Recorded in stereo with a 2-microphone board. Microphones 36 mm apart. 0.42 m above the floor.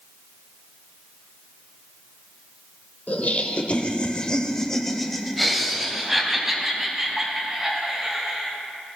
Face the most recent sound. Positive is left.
turn(degrees=-20)  # may be behind; listen again after turning